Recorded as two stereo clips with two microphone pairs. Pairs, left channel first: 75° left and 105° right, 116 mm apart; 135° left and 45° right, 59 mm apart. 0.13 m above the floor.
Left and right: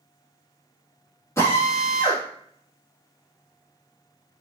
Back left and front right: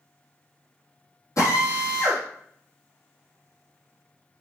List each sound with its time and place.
1.4 s a drill: 140° left, 4 m